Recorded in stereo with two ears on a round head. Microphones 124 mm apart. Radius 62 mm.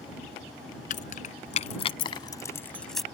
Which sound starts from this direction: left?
Keys jangling, at 0.9 s.